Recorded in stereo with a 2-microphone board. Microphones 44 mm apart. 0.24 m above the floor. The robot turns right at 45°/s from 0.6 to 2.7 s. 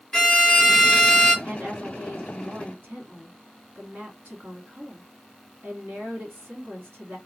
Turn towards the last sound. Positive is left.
turn(degrees=-70)